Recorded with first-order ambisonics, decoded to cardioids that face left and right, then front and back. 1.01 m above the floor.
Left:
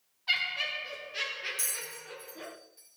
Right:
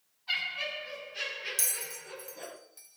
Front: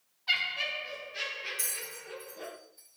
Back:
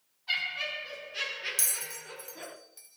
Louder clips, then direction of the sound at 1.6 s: Right 2 dB, back 3 dB; 145° right.